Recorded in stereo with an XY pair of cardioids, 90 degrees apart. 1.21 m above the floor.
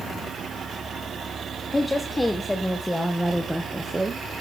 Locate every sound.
1.7 s a woman speaking: 25° left, 2 m; by 4.2 s 20° right, 1.4 m